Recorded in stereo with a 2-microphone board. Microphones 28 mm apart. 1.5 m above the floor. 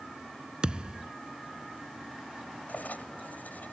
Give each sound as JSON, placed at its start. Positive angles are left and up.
{"t": 0.6, "sound": "a thud", "side_deg": -30}
{"t": 2.7, "sound": "writing", "side_deg": 75}